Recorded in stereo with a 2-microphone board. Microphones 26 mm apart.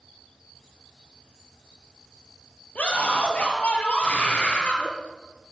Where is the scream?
65° left (ahead or behind), 4 m; by 4.9 s 55° left (ahead or behind), 2.5 m.